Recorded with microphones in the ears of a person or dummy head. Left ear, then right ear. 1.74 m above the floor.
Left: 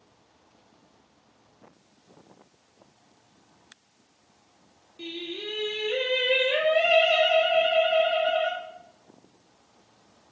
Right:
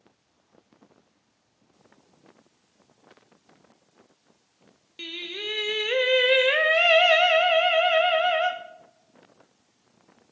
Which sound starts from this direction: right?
Singing, at 5.0 s.